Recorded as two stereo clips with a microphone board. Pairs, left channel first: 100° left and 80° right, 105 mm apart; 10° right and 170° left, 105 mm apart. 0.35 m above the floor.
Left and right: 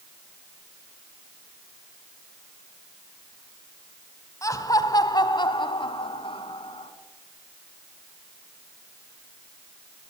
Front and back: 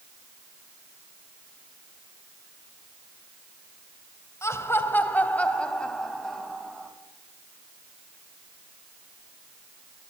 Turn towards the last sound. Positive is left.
turn(degrees=80)